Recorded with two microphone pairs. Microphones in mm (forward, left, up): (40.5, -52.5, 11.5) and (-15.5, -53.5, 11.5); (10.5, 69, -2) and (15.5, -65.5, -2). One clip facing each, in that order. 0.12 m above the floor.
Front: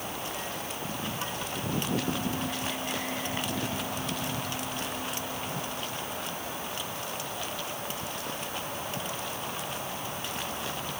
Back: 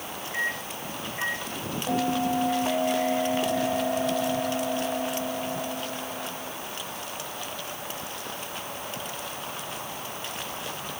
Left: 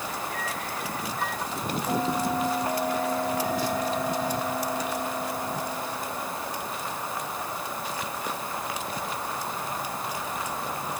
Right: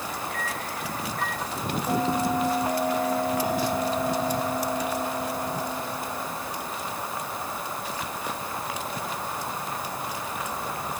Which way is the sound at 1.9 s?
170° right.